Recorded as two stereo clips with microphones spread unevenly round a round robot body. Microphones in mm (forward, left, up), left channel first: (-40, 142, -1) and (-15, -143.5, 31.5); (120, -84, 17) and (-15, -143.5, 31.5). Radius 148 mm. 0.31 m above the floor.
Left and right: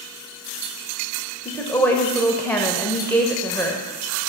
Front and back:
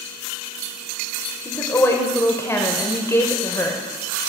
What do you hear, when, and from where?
1.4 s a woman speaking: 35° left, 0.9 m